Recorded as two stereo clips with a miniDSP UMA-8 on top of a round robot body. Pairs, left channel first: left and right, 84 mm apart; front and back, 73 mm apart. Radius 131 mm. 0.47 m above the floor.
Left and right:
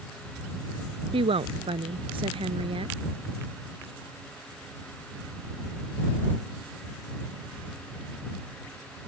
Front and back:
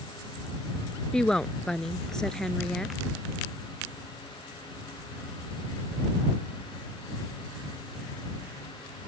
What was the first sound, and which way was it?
A woman speaking, 80° right.